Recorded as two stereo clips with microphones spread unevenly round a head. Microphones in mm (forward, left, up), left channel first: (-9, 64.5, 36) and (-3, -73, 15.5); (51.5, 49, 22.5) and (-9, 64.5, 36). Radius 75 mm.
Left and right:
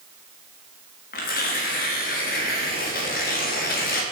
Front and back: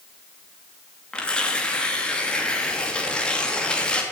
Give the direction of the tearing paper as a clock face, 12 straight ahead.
10 o'clock.